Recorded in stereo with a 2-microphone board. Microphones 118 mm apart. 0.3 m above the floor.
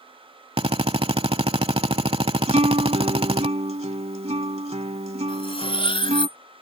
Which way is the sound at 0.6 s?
55° right (ahead or behind).